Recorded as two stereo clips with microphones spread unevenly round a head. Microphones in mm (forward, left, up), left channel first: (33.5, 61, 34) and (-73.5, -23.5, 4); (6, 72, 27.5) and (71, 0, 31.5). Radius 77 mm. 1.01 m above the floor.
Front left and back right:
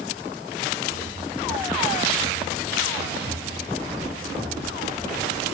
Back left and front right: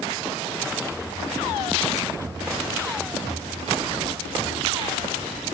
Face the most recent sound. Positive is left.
turn(degrees=125)